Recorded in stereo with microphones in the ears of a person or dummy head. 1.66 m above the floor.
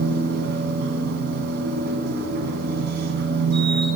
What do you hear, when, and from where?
0.0 s a machine running: 55° right (ahead or behind), 3.5 m